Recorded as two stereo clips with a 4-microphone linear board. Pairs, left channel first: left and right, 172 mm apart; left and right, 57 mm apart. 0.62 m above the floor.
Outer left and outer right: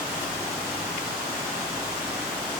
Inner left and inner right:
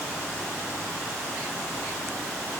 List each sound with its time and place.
Only background noise.